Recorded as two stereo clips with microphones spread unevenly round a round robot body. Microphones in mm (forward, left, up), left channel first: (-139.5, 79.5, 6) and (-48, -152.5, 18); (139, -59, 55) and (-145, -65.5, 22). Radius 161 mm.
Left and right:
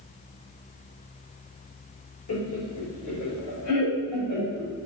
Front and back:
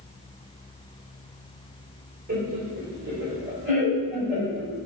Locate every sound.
2.3 s laughter: 115° left, 2 m; by 4.7 s 90° left, 5.5 m